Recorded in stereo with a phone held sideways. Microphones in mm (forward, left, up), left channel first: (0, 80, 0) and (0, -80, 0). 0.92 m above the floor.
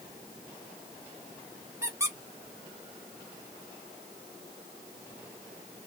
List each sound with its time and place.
1.8 s a squeak: 15° right (ahead or behind), 0.7 m